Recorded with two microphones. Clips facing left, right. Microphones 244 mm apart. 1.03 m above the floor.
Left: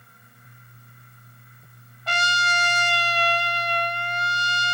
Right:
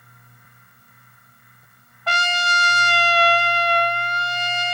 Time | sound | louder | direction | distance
2.1 | a trumpet | right 3 dB | 70° right (ahead or behind) | 0.7 m